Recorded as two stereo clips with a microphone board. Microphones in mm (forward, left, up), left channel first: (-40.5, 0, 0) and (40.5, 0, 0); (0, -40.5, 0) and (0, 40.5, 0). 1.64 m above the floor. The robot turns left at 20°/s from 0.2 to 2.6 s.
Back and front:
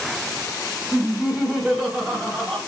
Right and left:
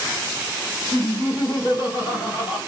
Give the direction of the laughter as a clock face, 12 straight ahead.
2 o'clock.